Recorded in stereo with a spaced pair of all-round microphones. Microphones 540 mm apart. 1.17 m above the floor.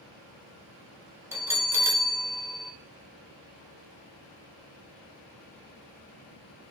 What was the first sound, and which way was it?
A bell, 5° right (ahead or behind).